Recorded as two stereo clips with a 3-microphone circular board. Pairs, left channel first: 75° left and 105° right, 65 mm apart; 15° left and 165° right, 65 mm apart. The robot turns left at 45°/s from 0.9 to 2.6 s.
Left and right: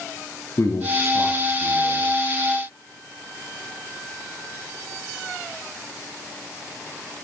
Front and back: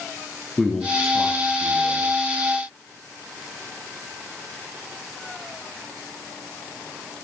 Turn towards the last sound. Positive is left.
turn(degrees=30)